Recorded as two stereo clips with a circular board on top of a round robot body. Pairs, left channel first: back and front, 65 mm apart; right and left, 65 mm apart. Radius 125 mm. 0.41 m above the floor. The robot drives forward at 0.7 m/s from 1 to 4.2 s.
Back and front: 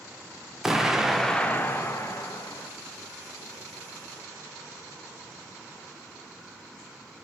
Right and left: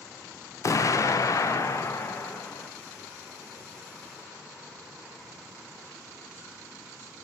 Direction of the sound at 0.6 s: 85° right.